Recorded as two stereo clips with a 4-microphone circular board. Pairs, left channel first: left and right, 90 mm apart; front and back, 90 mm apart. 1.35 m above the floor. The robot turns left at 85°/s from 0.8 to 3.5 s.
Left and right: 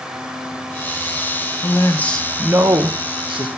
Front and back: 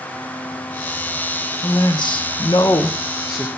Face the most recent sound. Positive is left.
turn(degrees=-110)